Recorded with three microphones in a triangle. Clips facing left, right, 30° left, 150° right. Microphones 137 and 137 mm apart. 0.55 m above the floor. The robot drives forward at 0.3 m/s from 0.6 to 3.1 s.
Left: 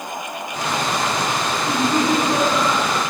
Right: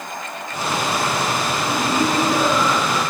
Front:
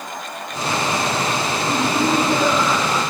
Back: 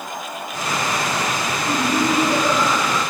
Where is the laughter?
140° left, 1.5 m; by 3.0 s 155° left, 1.7 m.